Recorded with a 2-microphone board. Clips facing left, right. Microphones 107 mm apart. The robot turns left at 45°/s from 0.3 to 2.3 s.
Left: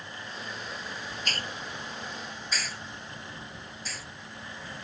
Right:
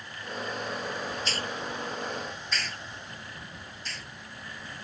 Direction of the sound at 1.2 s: 50° left (ahead or behind).